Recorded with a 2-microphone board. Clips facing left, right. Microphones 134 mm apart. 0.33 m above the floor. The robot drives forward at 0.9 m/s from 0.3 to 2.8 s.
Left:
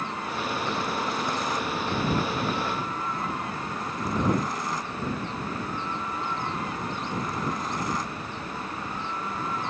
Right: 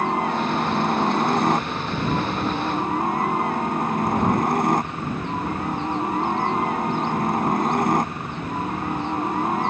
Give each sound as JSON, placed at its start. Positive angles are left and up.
{"t": 0.0, "sound": "a helicopter", "side_deg": -55}